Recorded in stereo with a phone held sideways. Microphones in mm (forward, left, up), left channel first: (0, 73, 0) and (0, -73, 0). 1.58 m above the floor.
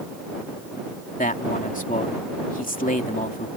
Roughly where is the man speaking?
Left.